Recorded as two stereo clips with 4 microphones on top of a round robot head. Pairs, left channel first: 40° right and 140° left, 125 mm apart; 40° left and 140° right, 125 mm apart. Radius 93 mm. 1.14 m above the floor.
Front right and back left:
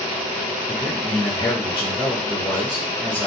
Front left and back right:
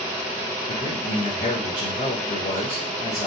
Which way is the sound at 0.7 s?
25° left.